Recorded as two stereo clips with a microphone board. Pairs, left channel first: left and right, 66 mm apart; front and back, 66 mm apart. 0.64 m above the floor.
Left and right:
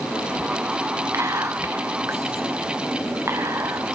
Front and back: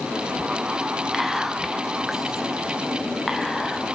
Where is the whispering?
95° right, 0.7 m.